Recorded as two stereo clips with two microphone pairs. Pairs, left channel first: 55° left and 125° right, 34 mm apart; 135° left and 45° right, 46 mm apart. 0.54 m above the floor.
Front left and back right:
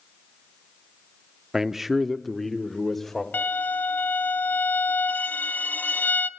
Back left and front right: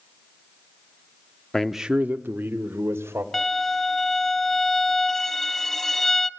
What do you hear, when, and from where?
1.5 s a man speaking: 170° right, 0.6 m; by 3.2 s 25° right, 1.7 m
3.3 s a violin: 55° left, 0.5 m